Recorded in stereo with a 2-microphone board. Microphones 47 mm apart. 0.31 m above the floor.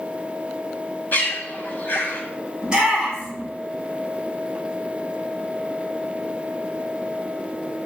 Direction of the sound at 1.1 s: 45° left (ahead or behind).